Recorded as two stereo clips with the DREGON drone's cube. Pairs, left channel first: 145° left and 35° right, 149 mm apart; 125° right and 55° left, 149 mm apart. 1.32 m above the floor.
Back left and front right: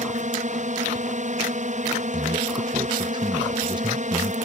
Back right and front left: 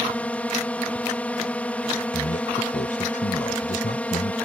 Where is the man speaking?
90° right.